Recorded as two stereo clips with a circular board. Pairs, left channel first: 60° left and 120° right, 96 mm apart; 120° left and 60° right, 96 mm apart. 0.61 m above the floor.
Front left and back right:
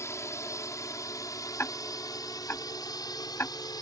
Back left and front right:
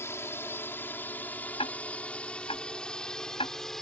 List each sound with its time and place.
0.0 s a drone: 85° left; by 3.8 s 35° left
1.6 s ticking: 125° left